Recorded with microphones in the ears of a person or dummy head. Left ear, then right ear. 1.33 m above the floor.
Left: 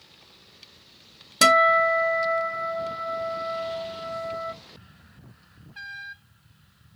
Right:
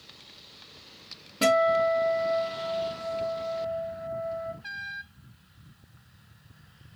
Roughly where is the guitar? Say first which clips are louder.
Left 5 dB; left.